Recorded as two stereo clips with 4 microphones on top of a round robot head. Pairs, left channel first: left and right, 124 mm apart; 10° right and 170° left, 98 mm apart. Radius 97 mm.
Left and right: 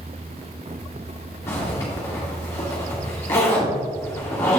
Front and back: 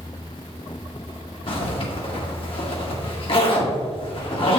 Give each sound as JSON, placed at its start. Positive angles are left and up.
{"t": 1.5, "sound": "a zipper", "azimuth_deg": 15, "distance_m": 1.9}